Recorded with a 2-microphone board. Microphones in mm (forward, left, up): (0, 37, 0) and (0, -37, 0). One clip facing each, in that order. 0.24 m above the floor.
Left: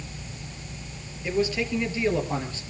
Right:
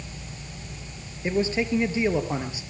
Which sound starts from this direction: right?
A man speaking, at 1.2 s.